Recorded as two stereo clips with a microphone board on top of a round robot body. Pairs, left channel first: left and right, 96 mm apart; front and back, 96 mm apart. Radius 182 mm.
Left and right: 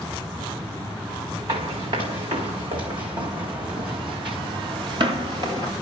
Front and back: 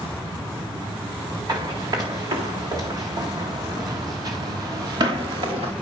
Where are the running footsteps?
130° right, 3.5 m; by 5.7 s 145° right, 0.6 m.